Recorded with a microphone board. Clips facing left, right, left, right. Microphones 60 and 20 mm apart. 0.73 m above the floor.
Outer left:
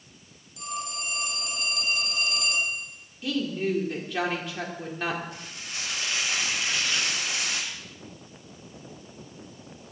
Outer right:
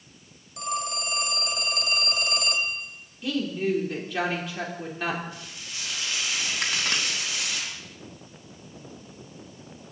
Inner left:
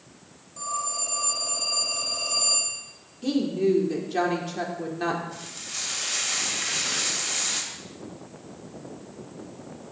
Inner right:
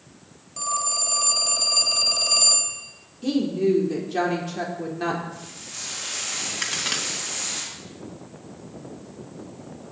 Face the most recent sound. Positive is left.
turn(degrees=-70)  # may be behind; listen again after turning